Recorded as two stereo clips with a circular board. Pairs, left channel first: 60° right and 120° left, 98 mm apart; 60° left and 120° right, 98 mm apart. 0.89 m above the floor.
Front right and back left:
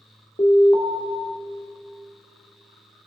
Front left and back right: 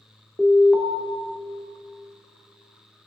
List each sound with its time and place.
0.4 s an alarm: 25° right, 1.1 m